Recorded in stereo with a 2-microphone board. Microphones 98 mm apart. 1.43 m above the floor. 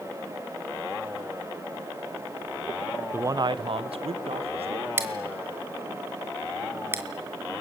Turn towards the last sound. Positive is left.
turn(degrees=-25)  # may be behind; listen again after turning